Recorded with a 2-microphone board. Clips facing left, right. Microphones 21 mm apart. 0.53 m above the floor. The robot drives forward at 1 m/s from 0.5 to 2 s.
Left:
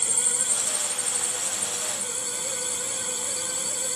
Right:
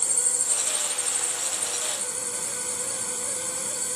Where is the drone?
50° left (ahead or behind).